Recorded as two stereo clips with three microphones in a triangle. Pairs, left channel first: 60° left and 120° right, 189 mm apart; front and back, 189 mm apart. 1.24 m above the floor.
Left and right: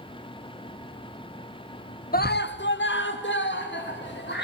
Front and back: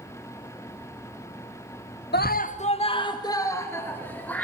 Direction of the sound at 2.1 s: 25° left.